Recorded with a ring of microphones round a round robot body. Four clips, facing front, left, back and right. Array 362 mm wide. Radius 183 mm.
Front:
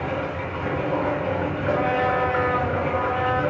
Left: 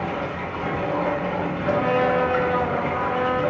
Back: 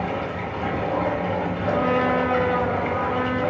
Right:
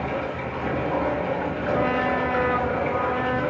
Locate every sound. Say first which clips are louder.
0.0 s running water: even, even; 160° right, 1.3 m
1.7 s a trumpet: left 3 dB, back 1 dB; 125° right, 0.8 m